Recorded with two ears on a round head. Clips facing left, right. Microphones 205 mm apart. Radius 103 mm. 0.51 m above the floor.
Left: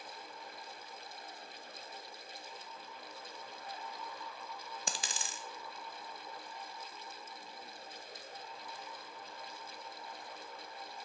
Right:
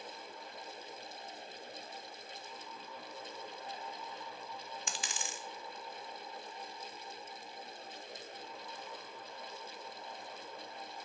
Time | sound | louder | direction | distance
4.9 | a dropped coin | left 2 dB | 30° left (ahead or behind) | 0.5 m